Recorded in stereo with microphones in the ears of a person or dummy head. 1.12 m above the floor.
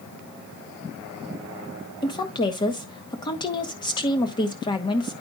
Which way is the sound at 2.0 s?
20° left (ahead or behind).